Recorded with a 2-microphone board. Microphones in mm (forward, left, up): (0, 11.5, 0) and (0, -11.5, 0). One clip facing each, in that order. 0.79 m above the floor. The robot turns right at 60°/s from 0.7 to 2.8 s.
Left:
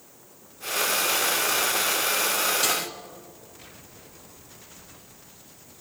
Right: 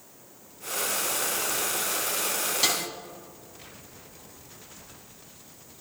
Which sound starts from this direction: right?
A snare drum, at 2.6 s.